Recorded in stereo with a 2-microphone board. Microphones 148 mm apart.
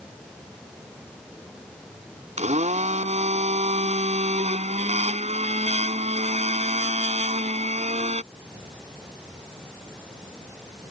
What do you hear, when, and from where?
2.4 s a blender: 50° right (ahead or behind)